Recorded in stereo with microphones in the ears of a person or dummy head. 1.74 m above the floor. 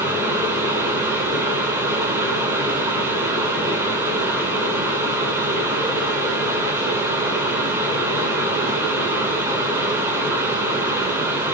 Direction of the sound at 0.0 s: 15° right (ahead or behind).